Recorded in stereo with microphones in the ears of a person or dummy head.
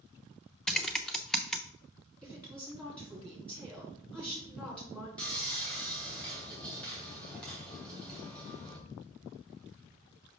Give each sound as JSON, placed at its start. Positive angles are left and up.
{"t": 0.7, "sound": "typing on a keyboard", "side_deg": 0, "distance_m": 0.6}
{"t": 2.2, "sound": "a woman speaking", "side_deg": 5, "distance_m": 3.0}
{"t": 5.2, "sound": "sawing", "side_deg": 5, "distance_m": 2.0}